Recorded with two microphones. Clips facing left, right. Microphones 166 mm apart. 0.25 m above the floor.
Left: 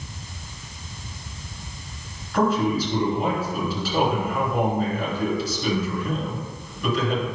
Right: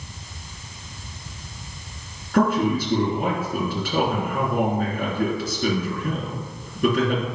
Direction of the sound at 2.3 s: 60° right (ahead or behind).